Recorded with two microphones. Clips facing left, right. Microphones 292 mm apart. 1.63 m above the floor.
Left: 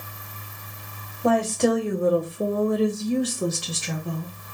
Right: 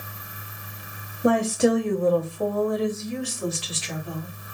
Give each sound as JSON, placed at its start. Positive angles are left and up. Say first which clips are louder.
{"t": 1.2, "sound": "a woman speaking", "louder": "right 1 dB", "side_deg": -20, "distance_m": 0.8}